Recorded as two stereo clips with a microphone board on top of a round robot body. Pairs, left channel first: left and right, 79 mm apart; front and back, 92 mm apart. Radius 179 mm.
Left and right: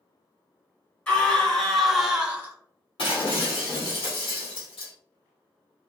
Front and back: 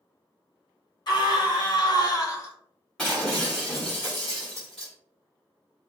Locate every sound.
1.1 s a scream: 20° left, 1.9 m; by 2.5 s 45° right, 1.1 m
3.0 s breaking glass: 85° left, 1.6 m